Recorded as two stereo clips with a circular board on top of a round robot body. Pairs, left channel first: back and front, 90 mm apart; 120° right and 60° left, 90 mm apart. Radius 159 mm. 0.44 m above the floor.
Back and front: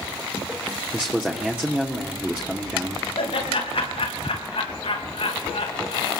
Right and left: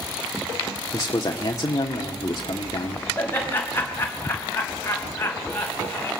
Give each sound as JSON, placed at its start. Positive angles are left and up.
{"t": 0.9, "sound": "a man speaking", "azimuth_deg": -75, "distance_m": 1.5}
{"t": 3.2, "sound": "laughter", "azimuth_deg": 170, "distance_m": 4.0}